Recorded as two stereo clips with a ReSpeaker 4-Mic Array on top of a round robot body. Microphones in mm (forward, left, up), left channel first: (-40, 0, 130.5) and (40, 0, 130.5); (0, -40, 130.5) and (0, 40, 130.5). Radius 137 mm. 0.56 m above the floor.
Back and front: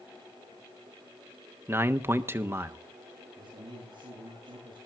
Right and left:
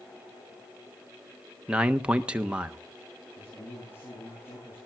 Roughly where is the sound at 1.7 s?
Ahead left.